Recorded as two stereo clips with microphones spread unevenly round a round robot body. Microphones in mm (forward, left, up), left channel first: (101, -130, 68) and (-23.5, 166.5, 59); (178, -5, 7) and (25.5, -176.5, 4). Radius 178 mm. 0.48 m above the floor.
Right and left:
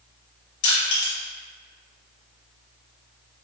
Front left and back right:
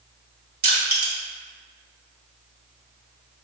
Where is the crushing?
90° right, 1.6 m.